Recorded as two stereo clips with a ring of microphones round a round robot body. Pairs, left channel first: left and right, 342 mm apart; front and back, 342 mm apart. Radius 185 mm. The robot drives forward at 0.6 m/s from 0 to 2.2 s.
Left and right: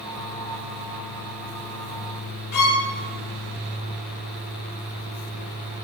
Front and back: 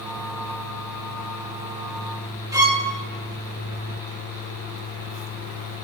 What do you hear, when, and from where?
2.5 s a violin: 105° left, 1.4 m